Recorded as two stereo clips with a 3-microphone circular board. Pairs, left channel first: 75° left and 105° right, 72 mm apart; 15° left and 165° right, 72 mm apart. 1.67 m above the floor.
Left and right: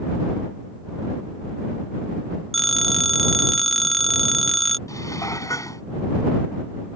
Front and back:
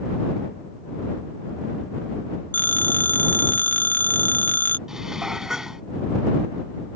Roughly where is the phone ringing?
Ahead.